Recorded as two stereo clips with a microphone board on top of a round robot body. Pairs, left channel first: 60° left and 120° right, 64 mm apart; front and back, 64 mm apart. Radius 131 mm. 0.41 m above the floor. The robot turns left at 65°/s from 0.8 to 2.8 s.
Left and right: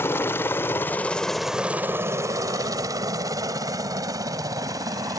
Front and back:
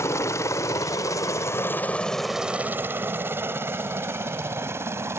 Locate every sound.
0.0 s a helicopter: 20° left; by 5.2 s 135° right